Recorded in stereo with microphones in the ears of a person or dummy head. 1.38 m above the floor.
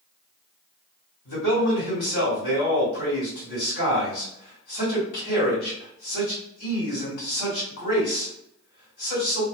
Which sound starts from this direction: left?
A man speaking, at 1.2 s.